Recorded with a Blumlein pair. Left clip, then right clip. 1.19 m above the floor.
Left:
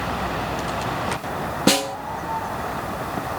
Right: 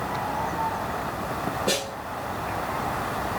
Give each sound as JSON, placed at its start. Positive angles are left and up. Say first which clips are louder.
{"t": 1.7, "sound": "a snare drum", "louder": "left 9 dB", "azimuth_deg": 55, "distance_m": 0.7}